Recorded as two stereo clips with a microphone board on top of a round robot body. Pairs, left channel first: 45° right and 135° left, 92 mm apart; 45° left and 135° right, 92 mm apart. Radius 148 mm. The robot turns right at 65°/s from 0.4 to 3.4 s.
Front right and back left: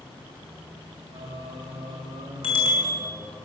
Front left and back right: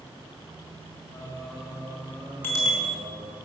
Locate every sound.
1.1 s singing: 105° left, 4 m; by 3.4 s 105° right, 4 m
2.4 s a bicycle bell: 25° right, 5 m; by 3.0 s 15° left, 5 m